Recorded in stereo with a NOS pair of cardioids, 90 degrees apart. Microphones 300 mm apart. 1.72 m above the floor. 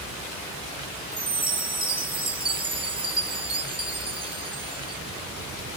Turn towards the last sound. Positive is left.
turn(degrees=-15)